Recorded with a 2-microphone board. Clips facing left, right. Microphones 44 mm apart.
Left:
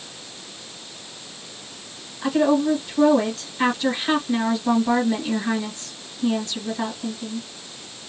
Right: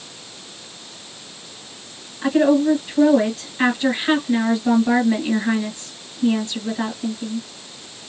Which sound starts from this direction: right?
A woman speaking, at 2.2 s.